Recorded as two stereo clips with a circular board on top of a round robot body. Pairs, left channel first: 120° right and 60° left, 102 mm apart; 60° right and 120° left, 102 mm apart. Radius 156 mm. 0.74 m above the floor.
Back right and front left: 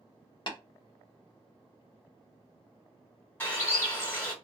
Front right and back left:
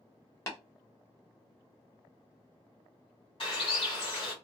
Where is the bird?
50° right, 1.8 m.